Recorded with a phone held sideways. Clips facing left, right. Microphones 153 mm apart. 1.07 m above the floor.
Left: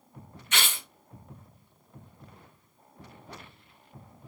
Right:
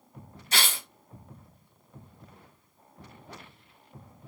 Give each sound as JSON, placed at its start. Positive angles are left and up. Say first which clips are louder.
{"t": 0.5, "sound": "tearing paper", "louder": "right 1 dB", "side_deg": -35, "distance_m": 0.9}